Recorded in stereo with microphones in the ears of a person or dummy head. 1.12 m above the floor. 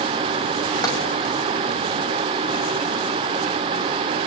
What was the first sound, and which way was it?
Tapping, 20° left (ahead or behind).